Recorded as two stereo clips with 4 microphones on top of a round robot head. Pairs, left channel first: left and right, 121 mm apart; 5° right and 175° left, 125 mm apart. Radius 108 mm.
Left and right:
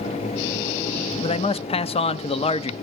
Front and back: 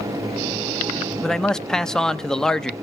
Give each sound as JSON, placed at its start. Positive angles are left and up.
{"t": 1.2, "sound": "a man speaking", "azimuth_deg": 75, "distance_m": 0.7}